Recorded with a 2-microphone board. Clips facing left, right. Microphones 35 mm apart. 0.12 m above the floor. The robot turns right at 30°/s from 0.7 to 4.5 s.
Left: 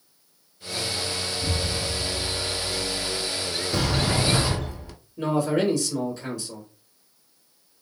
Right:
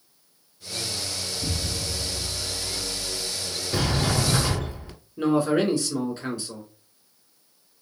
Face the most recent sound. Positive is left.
turn(degrees=-25)  # may be behind; listen again after turning